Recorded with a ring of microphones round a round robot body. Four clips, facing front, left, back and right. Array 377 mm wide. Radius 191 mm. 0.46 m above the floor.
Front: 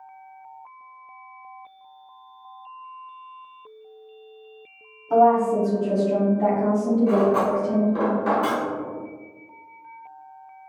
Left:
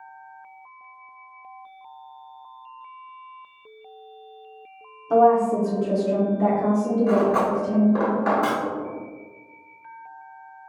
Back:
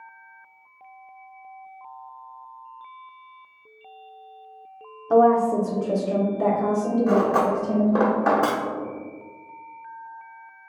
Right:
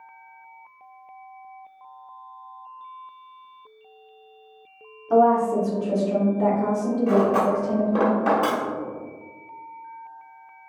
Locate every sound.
5.1 s a woman speaking: 170° left, 1.0 m; by 8.1 s 140° right, 2.5 m
7.1 s cutlery clinking: 165° right, 0.8 m